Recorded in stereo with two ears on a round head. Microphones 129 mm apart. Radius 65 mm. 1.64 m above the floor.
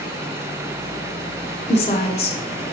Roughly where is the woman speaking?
Left.